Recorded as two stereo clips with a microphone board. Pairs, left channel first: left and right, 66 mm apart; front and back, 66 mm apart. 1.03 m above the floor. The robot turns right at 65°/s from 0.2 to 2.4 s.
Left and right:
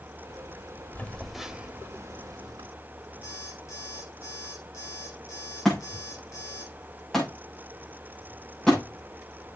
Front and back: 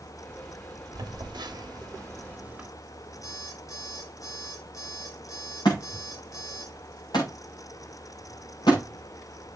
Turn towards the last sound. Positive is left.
turn(degrees=5)